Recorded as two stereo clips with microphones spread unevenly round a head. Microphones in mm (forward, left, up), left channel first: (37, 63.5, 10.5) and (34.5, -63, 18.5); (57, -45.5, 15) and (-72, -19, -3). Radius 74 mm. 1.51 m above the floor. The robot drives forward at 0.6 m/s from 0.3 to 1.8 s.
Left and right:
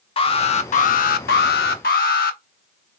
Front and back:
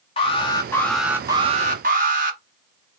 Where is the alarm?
45° left, 0.8 m; by 2.4 s 125° left, 0.6 m.